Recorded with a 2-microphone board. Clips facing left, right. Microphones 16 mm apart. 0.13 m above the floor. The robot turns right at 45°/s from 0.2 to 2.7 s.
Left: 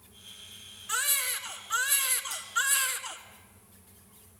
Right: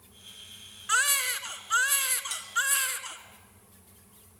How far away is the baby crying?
About 1.2 m.